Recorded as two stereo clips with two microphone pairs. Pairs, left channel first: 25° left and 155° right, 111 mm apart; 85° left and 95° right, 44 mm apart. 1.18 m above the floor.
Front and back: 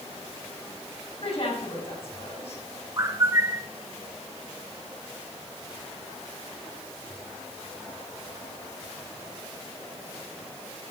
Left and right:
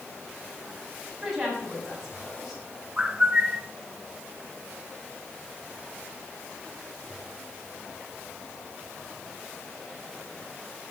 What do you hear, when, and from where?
1.2 s a woman speaking: 10° right, 8 m
3.0 s a bird: 140° right, 1.1 m